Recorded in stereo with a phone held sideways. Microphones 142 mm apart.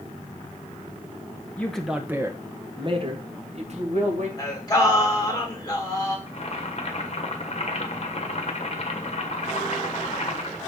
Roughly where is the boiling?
Left.